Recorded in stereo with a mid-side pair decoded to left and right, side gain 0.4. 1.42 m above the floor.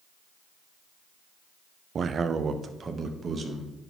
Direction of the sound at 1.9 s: 55° right.